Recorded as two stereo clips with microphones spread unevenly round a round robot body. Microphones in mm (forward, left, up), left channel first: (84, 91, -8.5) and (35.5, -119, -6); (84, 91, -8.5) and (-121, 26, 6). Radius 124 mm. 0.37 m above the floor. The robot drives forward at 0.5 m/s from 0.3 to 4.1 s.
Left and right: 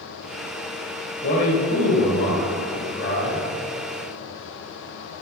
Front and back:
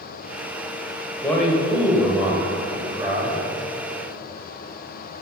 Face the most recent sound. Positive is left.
turn(degrees=140)